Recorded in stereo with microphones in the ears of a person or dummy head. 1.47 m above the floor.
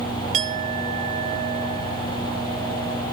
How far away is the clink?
About 1.4 m.